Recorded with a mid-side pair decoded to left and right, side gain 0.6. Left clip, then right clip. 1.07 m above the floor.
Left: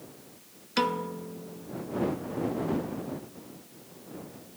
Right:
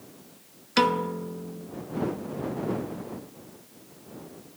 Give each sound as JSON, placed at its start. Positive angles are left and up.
{"t": 0.8, "sound": "a piano", "azimuth_deg": -30}